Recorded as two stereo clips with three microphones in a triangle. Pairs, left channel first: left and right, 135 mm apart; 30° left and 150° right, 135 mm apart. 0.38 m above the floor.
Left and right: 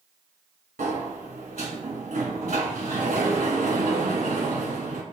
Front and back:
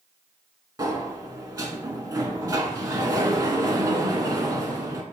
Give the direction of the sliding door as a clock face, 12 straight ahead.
3 o'clock.